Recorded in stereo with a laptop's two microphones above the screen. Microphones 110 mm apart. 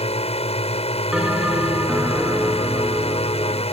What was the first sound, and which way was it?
A drone, 65° left (ahead or behind).